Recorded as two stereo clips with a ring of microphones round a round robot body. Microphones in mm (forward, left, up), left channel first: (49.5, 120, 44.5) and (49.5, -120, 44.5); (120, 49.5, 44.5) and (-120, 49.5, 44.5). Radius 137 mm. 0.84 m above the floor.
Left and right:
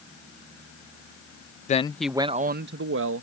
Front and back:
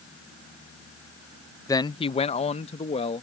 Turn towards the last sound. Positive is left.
turn(degrees=-65)